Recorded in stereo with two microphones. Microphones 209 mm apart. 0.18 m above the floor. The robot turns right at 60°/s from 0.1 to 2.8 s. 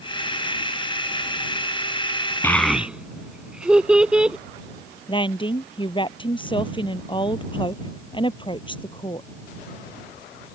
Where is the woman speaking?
25° left (ahead or behind).